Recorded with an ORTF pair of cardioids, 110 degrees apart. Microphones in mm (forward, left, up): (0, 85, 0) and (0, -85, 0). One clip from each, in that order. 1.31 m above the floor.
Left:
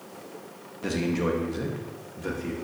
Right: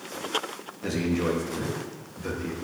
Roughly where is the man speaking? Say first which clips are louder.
Even; ahead.